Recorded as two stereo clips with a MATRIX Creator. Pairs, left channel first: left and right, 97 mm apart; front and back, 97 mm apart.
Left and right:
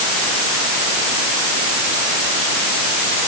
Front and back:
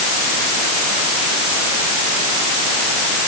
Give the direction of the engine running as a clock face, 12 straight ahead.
I don't hear an engine running.